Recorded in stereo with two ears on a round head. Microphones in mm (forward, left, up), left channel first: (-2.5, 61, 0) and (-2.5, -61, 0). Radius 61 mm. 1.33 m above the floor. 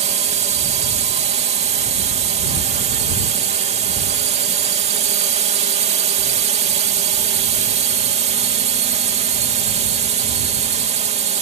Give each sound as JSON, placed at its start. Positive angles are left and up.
{"t": 0.0, "sound": "a drone", "side_deg": -50}